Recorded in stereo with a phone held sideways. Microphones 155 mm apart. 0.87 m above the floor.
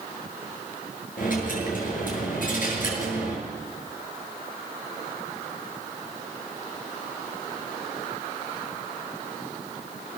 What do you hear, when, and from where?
1.2 s a dropped coin: 65° left (ahead or behind), 7.5 m